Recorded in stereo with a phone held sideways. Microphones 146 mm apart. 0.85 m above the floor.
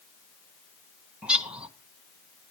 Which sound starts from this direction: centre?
A bird, at 1.2 s.